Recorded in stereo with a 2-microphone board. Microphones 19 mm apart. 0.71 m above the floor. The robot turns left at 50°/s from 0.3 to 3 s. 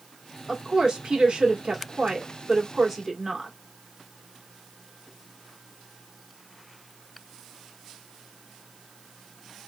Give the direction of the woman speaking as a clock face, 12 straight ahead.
1 o'clock.